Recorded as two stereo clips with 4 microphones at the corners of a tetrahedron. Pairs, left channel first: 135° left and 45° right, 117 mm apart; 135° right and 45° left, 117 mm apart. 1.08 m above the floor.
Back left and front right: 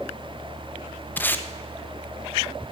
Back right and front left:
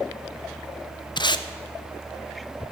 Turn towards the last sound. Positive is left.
turn(degrees=-160)